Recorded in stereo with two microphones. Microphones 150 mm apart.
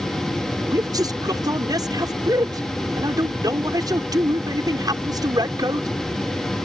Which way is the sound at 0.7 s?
25° right (ahead or behind).